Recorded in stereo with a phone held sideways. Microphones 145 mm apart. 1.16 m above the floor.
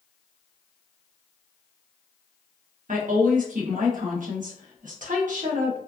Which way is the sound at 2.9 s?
65° right (ahead or behind).